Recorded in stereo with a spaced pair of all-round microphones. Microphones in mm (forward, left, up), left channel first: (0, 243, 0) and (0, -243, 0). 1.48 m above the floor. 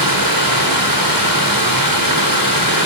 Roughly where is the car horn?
No car horn in this recording.